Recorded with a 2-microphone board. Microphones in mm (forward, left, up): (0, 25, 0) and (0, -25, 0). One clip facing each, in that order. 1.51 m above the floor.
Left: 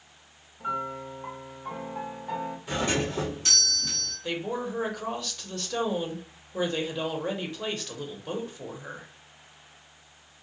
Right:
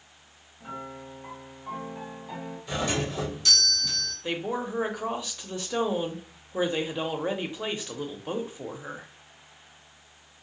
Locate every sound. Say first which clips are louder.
0.6 s a piano: left 7 dB; 50° left (ahead or behind), 1.0 m
2.7 s a doorbell: left 1 dB; 30° left (ahead or behind), 1.3 m
4.2 s a woman speaking: right 1 dB; 15° right (ahead or behind), 0.6 m